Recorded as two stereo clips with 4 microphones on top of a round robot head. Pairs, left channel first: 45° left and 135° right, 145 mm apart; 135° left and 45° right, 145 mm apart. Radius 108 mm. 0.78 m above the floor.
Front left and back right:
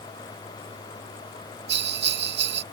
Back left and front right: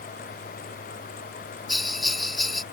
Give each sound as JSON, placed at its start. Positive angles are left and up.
{"t": 1.7, "sound": "a bell", "azimuth_deg": -135}